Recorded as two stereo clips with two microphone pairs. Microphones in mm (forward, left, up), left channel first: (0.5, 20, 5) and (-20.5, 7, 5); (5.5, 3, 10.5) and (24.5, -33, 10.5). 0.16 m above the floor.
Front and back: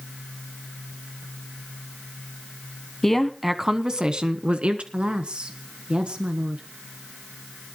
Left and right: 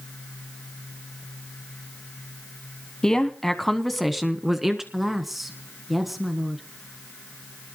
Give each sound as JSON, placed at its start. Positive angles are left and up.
{"t": 3.0, "sound": "a woman speaking", "azimuth_deg": 80, "distance_m": 1.1}
{"t": 4.9, "sound": "a woman speaking", "azimuth_deg": -150, "distance_m": 1.4}